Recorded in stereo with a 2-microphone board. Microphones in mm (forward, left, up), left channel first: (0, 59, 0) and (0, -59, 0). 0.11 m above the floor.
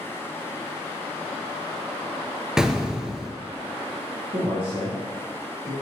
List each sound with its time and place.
2.6 s an explosion: 5° right (ahead or behind), 0.7 m
4.3 s a man speaking: 50° right (ahead or behind), 2 m